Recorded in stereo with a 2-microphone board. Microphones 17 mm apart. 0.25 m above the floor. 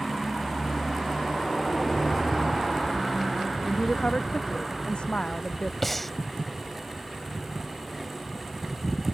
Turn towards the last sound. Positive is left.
turn(degrees=10)  # may be behind; listen again after turning